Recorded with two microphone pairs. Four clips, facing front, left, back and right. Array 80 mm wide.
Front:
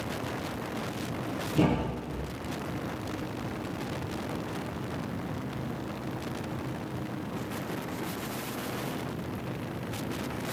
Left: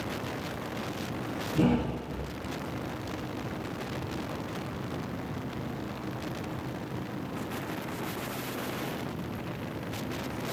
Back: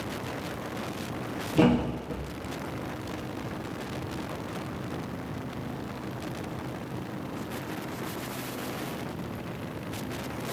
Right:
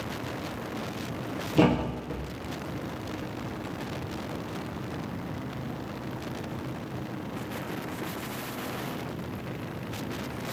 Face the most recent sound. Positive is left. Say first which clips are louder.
# right 3 dB, back 4 dB
turn(degrees=-120)